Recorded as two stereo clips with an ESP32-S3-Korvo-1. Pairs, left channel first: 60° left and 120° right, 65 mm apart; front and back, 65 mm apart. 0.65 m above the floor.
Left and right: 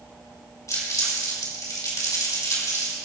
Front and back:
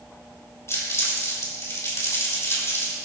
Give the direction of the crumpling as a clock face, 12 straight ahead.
11 o'clock.